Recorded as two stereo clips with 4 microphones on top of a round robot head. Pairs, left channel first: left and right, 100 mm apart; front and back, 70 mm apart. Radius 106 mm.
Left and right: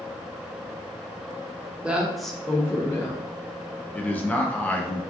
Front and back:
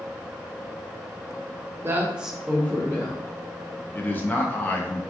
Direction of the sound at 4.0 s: 30° left.